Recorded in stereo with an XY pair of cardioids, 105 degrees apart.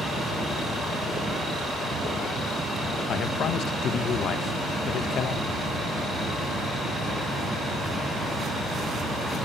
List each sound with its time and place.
3.1 s a man speaking: 65° left, 1.7 m